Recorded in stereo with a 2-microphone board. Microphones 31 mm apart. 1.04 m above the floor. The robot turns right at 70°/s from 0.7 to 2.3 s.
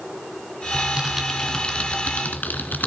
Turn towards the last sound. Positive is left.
turn(degrees=65)  # may be behind; listen again after turning